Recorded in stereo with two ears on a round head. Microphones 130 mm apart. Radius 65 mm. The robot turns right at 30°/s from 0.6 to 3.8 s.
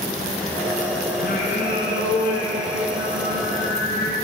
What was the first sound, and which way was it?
Singing, 50° left.